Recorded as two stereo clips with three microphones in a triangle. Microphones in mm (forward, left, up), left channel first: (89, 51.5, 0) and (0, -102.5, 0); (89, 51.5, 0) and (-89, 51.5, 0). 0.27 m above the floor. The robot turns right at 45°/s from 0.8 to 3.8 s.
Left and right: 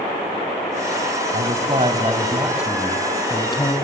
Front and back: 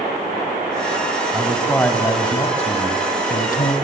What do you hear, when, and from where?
1.3 s a man speaking: 95° right, 2.5 m; by 3.8 s 10° left, 2.5 m